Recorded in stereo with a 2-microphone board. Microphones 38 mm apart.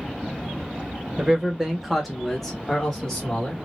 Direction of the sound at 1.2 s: 20° right (ahead or behind).